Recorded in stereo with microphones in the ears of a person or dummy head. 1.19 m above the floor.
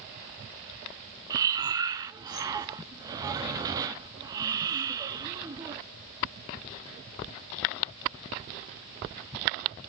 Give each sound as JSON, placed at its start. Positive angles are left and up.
{"t": 1.3, "sound": "breathing", "side_deg": -20, "distance_m": 0.7}